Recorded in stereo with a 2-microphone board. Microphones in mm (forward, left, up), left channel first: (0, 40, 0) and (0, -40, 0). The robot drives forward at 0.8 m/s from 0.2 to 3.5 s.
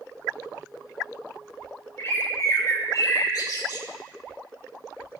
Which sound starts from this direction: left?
A bird, at 2.0 s.